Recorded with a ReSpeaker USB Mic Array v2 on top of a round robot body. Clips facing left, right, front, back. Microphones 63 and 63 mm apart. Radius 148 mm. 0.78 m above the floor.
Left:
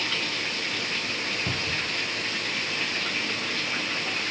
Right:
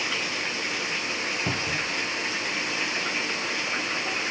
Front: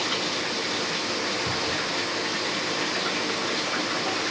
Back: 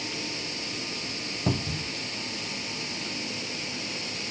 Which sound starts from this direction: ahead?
Running water, at 0.0 s.